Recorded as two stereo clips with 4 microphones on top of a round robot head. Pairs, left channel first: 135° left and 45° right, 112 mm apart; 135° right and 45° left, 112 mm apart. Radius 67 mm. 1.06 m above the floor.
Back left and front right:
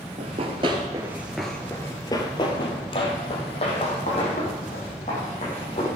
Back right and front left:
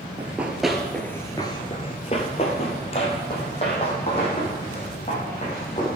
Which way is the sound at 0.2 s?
25° right.